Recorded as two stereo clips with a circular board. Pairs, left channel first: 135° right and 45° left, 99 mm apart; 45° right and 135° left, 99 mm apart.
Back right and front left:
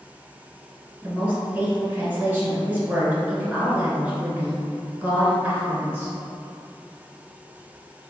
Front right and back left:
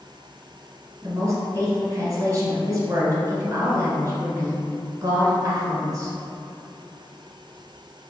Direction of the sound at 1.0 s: 105° left.